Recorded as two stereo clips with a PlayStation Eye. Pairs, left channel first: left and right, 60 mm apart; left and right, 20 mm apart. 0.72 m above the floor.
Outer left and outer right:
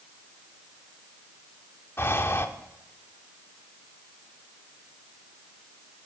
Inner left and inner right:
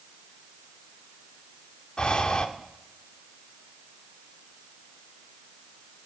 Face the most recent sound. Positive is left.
turn(degrees=45)  # may be behind; listen again after turning